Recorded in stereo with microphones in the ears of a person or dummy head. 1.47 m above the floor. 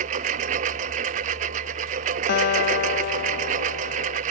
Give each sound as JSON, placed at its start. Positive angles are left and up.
{"t": 0.0, "sound": "a lawn mower", "side_deg": -40}
{"t": 2.3, "sound": "a guitar", "side_deg": 55}